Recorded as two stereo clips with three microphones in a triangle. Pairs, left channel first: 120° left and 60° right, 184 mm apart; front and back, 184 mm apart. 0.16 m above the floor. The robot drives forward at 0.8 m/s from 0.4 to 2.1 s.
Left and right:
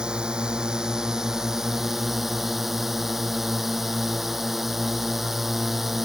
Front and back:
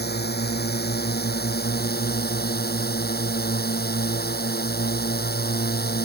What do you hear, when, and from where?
0.0 s a drone: 25° left; by 6.0 s 30° left